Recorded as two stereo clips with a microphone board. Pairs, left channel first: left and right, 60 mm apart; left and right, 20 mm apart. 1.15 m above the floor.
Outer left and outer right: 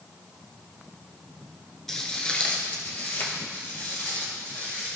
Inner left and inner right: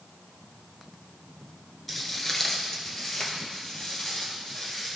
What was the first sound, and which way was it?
Footsteps, 5° left (ahead or behind).